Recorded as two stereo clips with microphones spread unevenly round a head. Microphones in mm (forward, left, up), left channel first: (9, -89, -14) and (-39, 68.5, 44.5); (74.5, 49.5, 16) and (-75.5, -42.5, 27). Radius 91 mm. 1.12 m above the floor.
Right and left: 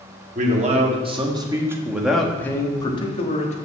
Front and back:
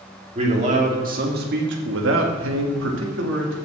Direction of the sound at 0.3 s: 155° left.